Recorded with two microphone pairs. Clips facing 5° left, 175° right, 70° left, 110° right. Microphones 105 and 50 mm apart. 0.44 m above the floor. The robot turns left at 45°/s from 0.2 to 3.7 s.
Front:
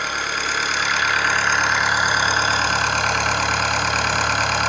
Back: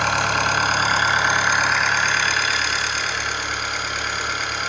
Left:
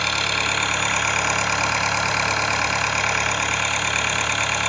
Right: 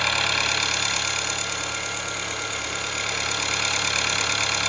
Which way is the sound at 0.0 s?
165° left.